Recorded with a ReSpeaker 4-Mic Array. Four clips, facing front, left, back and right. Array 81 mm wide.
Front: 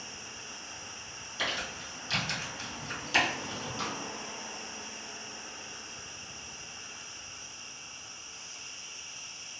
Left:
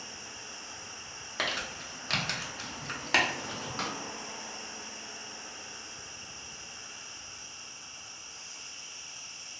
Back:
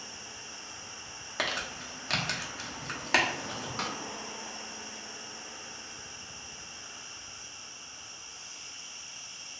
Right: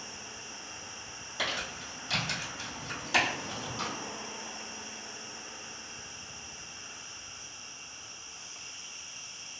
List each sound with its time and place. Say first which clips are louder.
0.0 s an insect: even, even; 5° left, 1.3 m
1.4 s crumpling: left 1 dB, back 1 dB; 140° left, 1.0 m
3.8 s a snare drum: left 1 dB, back 1 dB; 135° left, 0.6 m